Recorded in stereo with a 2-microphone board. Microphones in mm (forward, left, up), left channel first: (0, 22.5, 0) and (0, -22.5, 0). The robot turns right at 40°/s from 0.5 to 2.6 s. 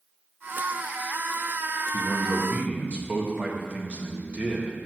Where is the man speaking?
5° right (ahead or behind), 1.6 m; by 4.8 s 30° right (ahead or behind), 1.6 m.